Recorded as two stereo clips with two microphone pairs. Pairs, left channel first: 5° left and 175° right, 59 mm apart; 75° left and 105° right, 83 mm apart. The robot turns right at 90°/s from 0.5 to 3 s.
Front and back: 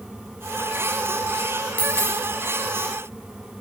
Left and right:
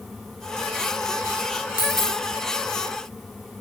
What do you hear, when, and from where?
1.8 s a dropped coin: 65° left, 0.8 m; by 2.2 s 100° left, 0.8 m